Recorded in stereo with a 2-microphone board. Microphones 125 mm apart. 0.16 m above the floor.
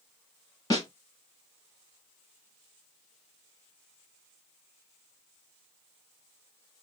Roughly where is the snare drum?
Left.